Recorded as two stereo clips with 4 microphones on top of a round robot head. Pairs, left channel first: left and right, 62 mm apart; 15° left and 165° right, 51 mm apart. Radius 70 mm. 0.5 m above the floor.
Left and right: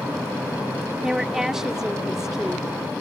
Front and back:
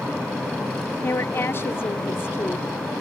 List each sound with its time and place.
1.0 s a woman speaking: 10° right